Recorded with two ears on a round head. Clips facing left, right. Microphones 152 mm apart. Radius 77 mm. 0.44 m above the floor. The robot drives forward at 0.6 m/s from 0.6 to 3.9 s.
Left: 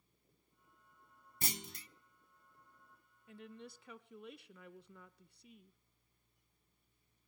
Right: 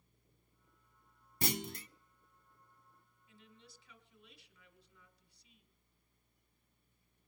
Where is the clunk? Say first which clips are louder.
Right 8 dB; 50° right (ahead or behind), 0.5 m; by 1.9 s 45° right (ahead or behind), 0.6 m.